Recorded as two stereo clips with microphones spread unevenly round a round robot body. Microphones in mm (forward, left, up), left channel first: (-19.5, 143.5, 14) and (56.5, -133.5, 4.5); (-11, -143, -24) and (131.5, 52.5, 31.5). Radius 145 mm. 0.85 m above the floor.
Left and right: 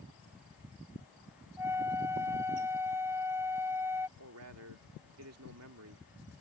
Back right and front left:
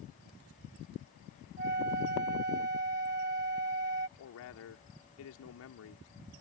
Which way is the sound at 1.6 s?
5° left.